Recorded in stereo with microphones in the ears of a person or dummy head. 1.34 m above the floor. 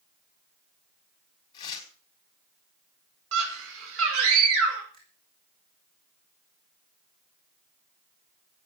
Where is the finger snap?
45° right (ahead or behind), 6 m.